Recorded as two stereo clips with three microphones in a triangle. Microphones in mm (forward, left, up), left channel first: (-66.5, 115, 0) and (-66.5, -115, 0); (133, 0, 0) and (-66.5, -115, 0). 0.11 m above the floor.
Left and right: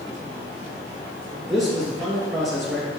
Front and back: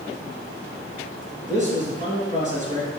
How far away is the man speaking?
About 1.4 m.